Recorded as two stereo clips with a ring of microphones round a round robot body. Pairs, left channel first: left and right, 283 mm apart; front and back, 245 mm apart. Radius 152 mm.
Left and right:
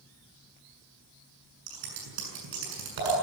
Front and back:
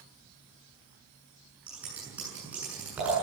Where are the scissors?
95° right, 7 m.